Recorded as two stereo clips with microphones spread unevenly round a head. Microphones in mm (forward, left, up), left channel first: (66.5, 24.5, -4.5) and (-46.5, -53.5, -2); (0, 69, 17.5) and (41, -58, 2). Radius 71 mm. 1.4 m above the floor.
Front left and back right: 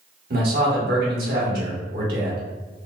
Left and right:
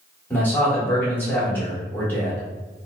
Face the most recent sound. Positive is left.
turn(degrees=-175)